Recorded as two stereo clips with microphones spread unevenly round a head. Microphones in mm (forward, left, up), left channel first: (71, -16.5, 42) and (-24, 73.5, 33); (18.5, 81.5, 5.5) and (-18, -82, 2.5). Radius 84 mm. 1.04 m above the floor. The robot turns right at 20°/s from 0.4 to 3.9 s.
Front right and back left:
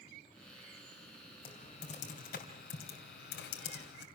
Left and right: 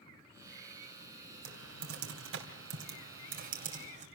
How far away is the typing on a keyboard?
About 3 m.